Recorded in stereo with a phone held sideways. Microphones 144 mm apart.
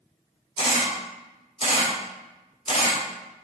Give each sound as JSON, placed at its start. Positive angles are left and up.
{"t": 0.6, "sound": "a camera shutter", "side_deg": 45, "distance_m": 1.3}